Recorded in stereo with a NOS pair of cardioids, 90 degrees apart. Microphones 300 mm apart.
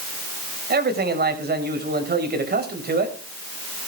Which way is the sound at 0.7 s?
35° right.